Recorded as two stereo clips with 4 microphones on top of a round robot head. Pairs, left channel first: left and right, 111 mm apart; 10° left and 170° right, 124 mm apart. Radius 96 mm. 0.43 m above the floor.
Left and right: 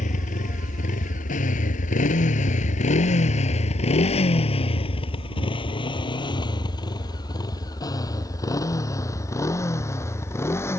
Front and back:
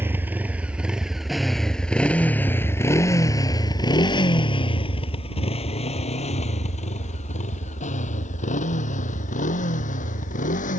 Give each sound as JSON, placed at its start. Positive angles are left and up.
{"t": 0.0, "sound": "a motorcycle", "azimuth_deg": 115}